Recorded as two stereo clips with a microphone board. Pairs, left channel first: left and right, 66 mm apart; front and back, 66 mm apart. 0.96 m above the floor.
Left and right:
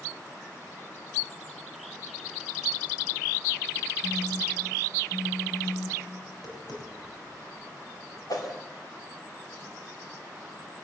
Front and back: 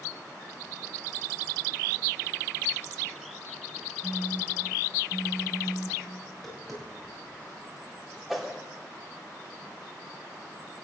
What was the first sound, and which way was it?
A phone buzzing, 95° left.